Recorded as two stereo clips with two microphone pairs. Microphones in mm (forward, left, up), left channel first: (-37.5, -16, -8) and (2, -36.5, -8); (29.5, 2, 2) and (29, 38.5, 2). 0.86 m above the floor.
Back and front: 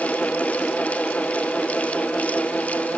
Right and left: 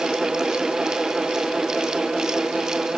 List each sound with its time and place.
Only background noise.